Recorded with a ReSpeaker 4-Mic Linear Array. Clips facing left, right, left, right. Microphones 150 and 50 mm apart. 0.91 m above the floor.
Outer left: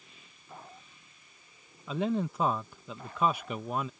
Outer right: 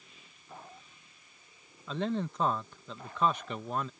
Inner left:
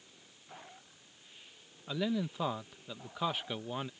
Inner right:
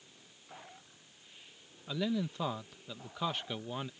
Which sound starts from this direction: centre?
A man speaking, at 1.9 s.